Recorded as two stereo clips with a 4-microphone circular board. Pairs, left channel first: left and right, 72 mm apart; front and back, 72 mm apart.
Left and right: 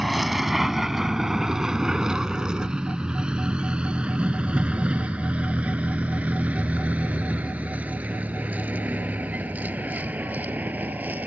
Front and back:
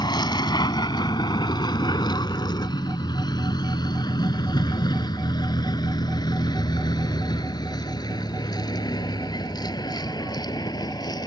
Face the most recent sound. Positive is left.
turn(degrees=-20)